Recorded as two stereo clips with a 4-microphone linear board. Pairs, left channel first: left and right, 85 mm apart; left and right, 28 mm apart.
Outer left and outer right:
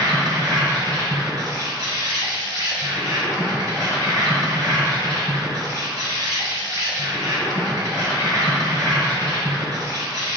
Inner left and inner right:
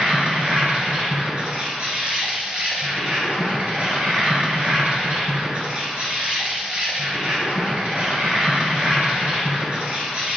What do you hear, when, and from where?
0.0 s an insect: 45° right (ahead or behind), 1.1 m